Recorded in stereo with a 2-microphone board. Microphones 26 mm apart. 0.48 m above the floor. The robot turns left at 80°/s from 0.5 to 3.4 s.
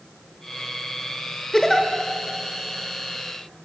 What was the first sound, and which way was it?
A giggle, 30° left (ahead or behind).